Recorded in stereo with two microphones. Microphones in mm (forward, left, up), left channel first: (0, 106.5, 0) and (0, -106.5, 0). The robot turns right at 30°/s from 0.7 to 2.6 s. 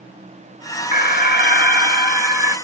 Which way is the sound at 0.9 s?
65° left.